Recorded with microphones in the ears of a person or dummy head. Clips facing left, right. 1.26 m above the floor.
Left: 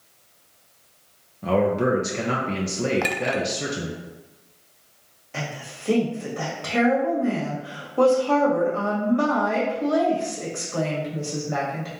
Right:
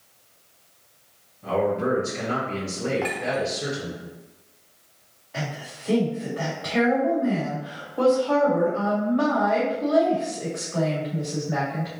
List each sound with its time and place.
1.4 s a man speaking: 60° left (ahead or behind), 0.9 m
3.0 s a clink: 60° left (ahead or behind), 0.6 m
5.3 s a woman speaking: 40° left (ahead or behind), 1.6 m